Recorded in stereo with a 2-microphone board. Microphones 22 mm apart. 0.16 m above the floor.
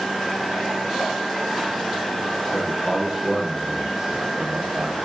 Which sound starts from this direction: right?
A man speaking, at 2.5 s.